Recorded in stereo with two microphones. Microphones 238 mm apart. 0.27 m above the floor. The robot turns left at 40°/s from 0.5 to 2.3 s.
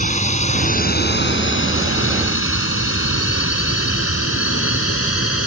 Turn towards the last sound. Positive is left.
turn(degrees=65)  # may be behind; listen again after turning